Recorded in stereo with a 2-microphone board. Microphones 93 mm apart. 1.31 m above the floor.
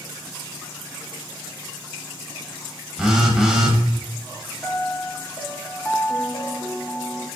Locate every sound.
3.0 s a phone buzzing: 5° right (ahead or behind), 0.8 m
4.6 s a piano: 25° left (ahead or behind), 0.8 m